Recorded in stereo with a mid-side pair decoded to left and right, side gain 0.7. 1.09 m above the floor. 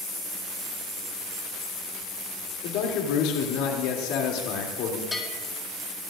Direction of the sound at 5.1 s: 10° left.